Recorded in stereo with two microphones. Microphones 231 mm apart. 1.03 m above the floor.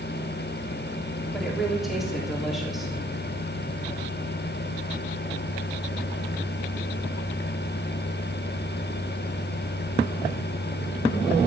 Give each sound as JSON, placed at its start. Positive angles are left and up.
{"t": 1.3, "sound": "a woman speaking", "side_deg": 0, "distance_m": 3.0}